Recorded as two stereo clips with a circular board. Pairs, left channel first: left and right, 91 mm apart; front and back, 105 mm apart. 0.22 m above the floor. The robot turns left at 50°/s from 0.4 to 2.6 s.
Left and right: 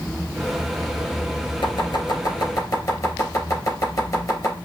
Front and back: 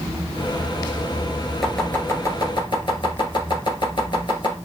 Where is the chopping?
90° left, 2.5 m; by 4.6 s 40° left, 2.5 m.